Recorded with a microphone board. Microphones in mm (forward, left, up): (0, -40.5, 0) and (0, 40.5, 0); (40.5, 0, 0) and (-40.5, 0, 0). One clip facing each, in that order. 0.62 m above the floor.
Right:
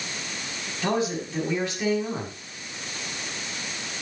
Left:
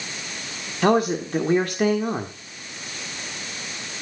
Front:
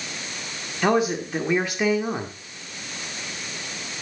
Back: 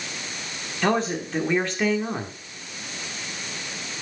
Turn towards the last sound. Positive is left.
turn(degrees=80)